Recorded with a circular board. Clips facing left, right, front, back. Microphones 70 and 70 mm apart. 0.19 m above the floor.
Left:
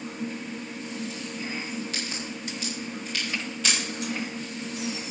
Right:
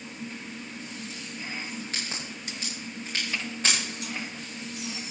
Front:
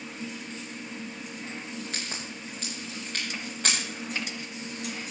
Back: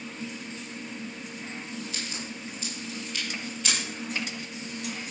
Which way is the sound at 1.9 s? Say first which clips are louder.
Left 3 dB, even; 40° right.